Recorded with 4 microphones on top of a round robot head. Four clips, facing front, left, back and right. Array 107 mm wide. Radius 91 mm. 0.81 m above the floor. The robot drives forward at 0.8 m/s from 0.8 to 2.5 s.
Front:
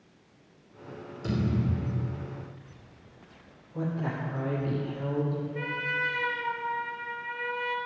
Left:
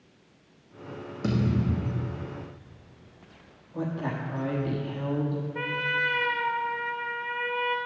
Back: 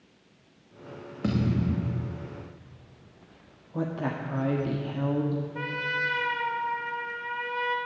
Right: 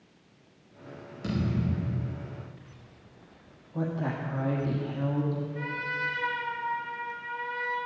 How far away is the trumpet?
About 1.0 m.